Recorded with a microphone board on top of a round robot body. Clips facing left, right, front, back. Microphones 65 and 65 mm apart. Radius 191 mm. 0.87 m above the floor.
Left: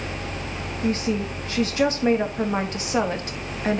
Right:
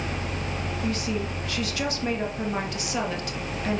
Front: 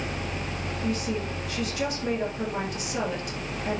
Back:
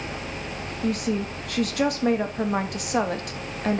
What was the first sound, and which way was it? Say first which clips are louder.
A woman speaking: left 6 dB, back 4 dB; 150° left.